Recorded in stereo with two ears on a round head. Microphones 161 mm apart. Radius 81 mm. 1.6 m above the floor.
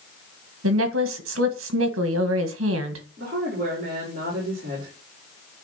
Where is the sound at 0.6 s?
80° right, 1.7 m.